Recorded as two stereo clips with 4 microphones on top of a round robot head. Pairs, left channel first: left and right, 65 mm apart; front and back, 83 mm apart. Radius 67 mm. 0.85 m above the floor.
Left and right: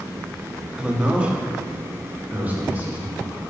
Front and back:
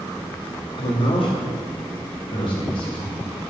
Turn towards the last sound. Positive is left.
turn(degrees=-30)